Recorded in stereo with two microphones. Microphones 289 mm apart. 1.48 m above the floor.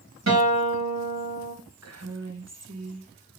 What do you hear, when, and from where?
0.3 s a guitar: 65° right (ahead or behind), 4.5 m
1.8 s a woman speaking: 60° right (ahead or behind), 1.5 m